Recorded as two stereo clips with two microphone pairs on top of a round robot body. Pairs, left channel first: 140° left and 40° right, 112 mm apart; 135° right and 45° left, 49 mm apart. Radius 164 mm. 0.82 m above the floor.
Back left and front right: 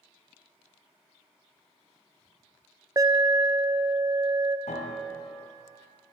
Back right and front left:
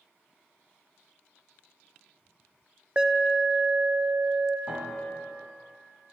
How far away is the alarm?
About 1.1 m.